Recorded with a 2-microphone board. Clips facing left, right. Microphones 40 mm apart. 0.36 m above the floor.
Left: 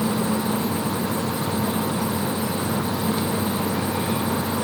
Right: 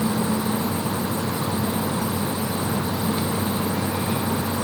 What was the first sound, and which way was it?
Only background noise.